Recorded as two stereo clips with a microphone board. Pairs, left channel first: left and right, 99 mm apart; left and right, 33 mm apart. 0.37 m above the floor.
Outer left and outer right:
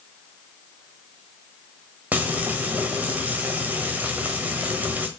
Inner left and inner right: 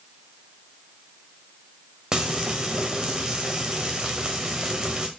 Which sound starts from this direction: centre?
Frying, at 2.1 s.